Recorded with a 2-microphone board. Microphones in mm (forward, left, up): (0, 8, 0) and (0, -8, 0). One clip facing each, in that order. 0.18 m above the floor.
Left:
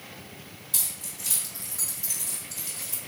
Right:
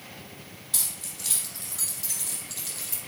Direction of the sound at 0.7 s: 25° right (ahead or behind).